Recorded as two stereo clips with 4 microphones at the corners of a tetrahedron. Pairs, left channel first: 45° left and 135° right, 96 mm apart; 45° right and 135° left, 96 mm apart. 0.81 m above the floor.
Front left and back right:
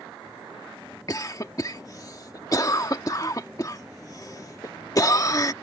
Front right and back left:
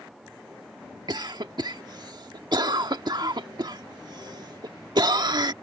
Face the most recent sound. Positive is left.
turn(degrees=95)